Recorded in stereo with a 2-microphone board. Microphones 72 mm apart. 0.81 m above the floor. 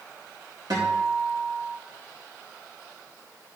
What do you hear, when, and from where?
0.7 s a guitar: 75° right (ahead or behind), 6 m